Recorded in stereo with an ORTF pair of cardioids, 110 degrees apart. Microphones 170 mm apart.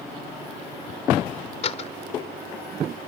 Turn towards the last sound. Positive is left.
turn(degrees=40)